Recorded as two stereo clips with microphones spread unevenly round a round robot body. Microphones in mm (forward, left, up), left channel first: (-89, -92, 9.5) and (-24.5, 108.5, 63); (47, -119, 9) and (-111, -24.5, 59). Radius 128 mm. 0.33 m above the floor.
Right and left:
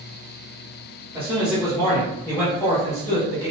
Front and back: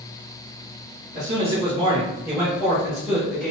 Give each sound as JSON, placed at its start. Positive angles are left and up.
{"t": 1.1, "sound": "a man speaking", "azimuth_deg": 165, "distance_m": 1.0}